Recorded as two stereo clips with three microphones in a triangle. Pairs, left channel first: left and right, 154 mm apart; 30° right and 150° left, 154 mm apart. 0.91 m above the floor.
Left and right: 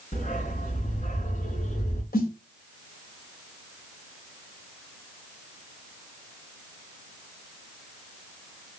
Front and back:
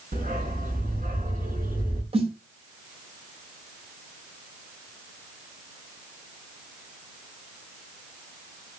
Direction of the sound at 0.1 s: 125° left.